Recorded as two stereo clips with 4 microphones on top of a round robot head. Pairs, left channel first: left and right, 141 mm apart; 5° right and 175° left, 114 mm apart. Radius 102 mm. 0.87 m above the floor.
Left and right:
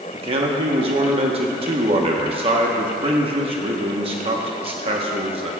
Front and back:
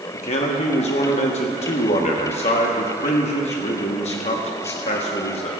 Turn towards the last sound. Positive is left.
turn(degrees=-35)